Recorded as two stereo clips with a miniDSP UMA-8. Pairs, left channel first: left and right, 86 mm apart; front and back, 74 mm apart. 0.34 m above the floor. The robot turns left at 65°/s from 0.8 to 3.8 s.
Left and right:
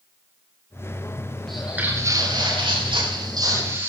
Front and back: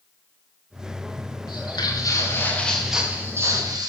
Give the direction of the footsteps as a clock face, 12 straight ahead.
12 o'clock.